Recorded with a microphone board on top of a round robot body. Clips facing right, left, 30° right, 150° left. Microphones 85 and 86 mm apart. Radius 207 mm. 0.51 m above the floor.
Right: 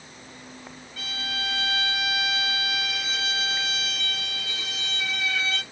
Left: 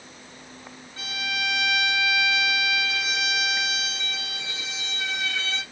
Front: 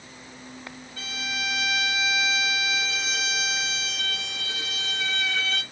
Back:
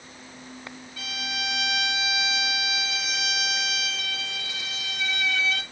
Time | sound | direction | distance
1.0 | a violin | 25° left | 3 m